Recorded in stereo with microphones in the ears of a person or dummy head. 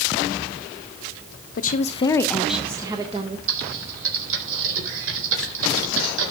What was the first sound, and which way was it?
A woman speaking, 50° left (ahead or behind).